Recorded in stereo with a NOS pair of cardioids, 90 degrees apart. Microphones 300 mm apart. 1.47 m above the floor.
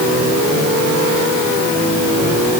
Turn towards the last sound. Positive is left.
No sound to turn to.